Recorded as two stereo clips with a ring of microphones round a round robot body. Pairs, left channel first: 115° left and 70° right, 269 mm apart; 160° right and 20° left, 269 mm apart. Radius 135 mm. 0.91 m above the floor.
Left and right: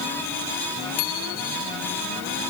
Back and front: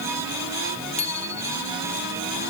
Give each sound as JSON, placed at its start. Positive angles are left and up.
{"t": 1.0, "sound": "a bicycle bell", "azimuth_deg": 135}